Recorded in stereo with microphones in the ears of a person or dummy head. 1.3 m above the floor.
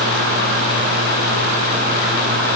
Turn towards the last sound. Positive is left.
No sound to turn to.